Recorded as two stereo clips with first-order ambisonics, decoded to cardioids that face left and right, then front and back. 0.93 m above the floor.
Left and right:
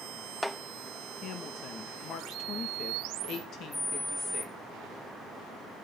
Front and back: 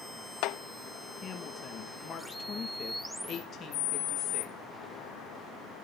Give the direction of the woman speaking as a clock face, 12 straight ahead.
10 o'clock.